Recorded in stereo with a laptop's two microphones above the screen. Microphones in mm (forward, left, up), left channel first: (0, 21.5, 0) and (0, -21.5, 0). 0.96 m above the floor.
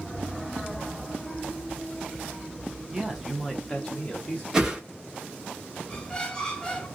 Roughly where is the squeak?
Centre.